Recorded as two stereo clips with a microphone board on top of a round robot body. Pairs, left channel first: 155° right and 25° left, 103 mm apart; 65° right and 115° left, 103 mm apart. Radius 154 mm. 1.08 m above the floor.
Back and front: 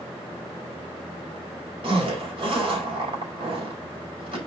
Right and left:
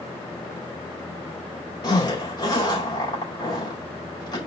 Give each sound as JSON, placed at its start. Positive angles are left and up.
{"t": 1.8, "sound": "a zipper", "azimuth_deg": -15, "distance_m": 4.5}